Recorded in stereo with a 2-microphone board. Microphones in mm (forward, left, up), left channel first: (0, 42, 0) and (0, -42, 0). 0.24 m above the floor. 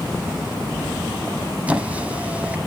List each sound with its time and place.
1.7 s a squeak: 15° right (ahead or behind), 0.9 m